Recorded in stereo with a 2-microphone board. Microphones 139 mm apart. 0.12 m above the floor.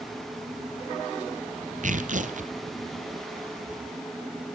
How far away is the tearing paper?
About 1.4 m.